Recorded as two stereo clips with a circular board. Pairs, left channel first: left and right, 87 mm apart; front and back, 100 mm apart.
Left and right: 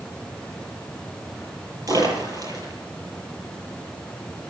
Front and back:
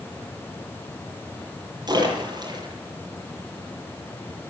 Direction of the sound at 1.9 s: 135° right.